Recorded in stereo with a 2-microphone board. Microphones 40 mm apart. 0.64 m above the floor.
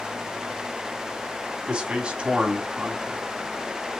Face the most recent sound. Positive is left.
turn(degrees=-30)  # may be behind; listen again after turning